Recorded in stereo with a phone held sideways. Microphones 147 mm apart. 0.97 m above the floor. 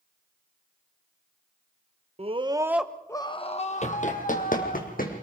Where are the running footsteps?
50° left (ahead or behind), 1.8 m; by 5.2 s 75° left (ahead or behind), 3.5 m.